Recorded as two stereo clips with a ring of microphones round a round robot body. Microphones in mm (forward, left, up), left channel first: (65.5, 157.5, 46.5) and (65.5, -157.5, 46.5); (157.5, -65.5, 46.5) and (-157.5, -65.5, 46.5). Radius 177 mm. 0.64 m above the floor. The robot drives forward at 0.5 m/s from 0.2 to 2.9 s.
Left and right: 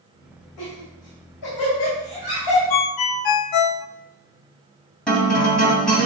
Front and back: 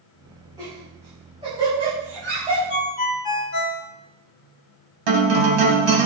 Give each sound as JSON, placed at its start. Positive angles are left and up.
{"t": 0.6, "sound": "laughter", "azimuth_deg": 100, "distance_m": 6.0}
{"t": 2.7, "sound": "a ringtone", "azimuth_deg": 65, "distance_m": 0.7}
{"t": 5.1, "sound": "a guitar", "azimuth_deg": 175, "distance_m": 2.5}